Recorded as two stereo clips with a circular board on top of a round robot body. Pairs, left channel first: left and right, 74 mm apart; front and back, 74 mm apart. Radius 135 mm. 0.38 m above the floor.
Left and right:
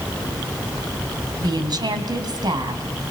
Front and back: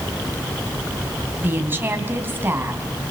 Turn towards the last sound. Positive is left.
turn(degrees=-115)